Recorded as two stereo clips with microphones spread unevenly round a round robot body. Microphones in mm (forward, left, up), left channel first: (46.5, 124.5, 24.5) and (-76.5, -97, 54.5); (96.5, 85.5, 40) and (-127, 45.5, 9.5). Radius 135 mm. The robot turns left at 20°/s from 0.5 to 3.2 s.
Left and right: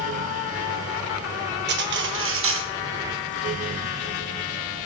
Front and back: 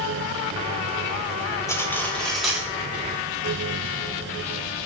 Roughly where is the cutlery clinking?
Right.